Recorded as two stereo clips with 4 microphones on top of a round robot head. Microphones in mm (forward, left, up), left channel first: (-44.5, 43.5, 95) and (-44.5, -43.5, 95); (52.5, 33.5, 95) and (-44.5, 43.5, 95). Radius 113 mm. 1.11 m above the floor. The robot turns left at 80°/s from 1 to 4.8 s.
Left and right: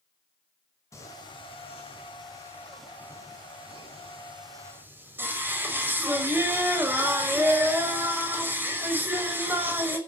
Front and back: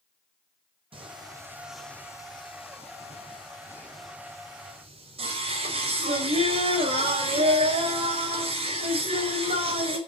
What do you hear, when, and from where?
0.9 s singing: 145° left, 5.5 m; by 10.0 s 160° right, 5.5 m